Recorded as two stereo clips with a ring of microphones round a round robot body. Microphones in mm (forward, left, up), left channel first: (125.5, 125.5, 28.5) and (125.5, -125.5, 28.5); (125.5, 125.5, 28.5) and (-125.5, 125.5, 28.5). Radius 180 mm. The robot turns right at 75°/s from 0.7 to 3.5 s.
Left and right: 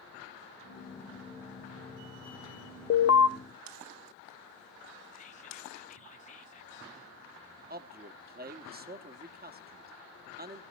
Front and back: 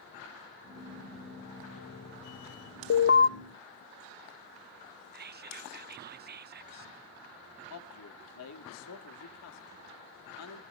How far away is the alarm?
About 0.8 m.